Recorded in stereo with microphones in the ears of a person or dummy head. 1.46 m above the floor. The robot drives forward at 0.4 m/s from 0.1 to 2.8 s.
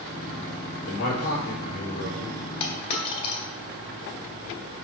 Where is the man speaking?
80° left, 4 m; by 2.5 s 90° left, 4 m.